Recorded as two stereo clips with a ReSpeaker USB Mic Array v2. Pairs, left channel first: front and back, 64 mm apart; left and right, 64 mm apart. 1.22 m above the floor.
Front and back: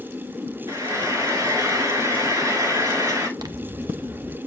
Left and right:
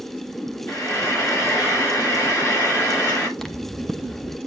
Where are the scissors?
175° left, 1.0 m.